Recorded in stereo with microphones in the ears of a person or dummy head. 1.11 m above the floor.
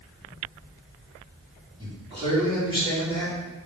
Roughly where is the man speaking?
Right.